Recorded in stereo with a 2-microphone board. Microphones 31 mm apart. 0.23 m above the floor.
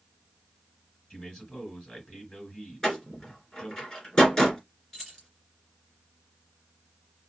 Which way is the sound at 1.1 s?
35° left (ahead or behind).